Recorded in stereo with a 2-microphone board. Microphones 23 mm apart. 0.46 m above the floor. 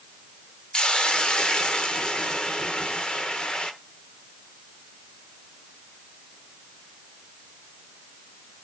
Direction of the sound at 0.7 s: 40° left (ahead or behind).